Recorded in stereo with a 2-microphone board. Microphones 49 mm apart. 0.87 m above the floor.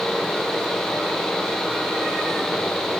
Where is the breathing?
No breathing in this recording.